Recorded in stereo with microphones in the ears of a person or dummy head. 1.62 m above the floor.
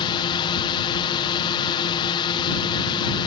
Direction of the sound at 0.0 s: 25° left (ahead or behind).